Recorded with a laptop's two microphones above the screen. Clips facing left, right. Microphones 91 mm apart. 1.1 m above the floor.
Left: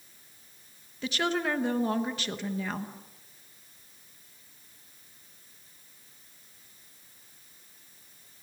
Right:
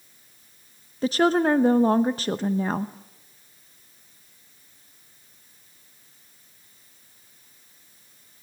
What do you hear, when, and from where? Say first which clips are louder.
1.0 s a woman speaking: right 9 dB; 40° right (ahead or behind), 0.8 m